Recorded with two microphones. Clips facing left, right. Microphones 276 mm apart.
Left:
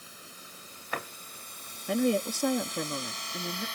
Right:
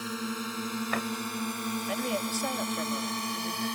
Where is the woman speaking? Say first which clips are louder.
Left 10 dB; 50° left (ahead or behind).